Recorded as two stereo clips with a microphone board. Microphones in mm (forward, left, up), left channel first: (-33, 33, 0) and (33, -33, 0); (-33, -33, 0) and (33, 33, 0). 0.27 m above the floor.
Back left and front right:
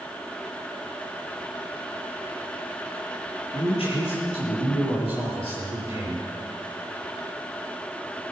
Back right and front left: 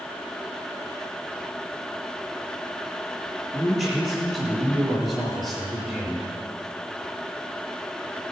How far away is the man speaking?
About 6.5 m.